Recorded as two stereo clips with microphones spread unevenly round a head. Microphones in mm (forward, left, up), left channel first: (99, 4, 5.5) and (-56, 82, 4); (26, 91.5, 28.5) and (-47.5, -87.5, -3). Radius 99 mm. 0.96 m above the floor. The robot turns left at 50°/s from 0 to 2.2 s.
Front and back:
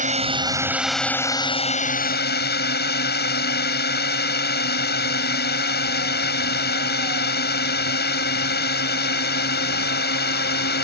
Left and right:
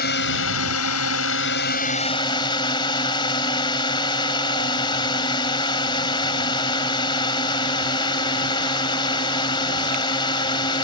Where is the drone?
110° left; by 10.8 s straight ahead.